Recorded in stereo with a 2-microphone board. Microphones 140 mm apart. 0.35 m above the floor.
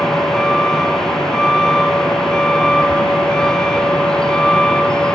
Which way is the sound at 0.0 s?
5° left (ahead or behind).